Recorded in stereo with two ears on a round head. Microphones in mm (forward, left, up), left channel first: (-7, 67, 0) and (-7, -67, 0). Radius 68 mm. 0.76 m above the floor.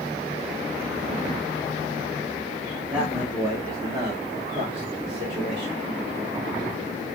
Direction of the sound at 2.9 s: 5° right (ahead or behind).